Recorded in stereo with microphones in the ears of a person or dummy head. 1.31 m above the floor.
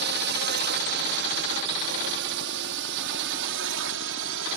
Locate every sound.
0.0 s a drone: 55° right (ahead or behind); by 4.6 s 65° right (ahead or behind)